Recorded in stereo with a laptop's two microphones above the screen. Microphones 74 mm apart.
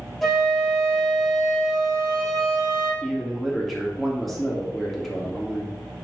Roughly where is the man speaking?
Centre.